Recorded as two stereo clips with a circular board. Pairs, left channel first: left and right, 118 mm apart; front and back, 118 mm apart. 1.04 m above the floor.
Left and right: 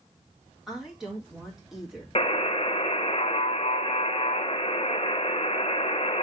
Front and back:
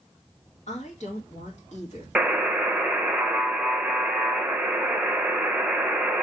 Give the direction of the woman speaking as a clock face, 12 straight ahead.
12 o'clock.